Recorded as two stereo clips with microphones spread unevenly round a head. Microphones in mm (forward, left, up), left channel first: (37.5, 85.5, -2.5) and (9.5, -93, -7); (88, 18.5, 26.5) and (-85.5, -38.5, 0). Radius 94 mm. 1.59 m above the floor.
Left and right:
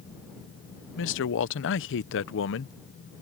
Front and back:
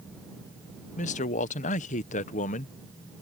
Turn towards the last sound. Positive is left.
turn(degrees=70)